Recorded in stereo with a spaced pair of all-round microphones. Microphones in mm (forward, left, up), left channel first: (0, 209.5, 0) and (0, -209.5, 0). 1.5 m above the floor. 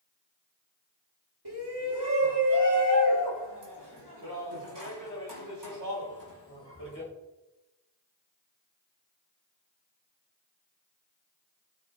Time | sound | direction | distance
1.4 | a shout | 65° right (ahead or behind) | 3.5 m